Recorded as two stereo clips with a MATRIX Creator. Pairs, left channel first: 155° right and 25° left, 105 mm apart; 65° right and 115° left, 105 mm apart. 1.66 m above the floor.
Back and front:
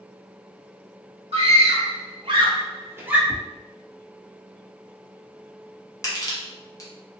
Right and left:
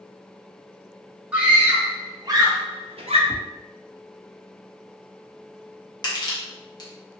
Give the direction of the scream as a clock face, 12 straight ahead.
11 o'clock.